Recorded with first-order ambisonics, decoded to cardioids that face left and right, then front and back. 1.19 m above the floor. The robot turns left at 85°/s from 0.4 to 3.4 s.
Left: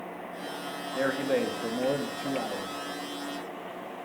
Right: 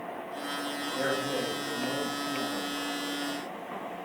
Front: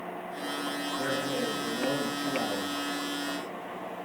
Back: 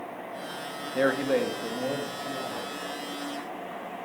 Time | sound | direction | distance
0.9 | a man speaking | 170° left | 1.5 m